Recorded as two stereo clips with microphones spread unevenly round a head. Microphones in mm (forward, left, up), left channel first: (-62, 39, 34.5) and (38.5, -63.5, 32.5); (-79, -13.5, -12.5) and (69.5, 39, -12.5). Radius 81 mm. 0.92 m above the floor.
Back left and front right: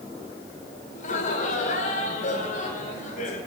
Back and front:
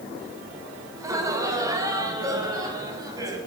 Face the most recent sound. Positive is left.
turn(degrees=90)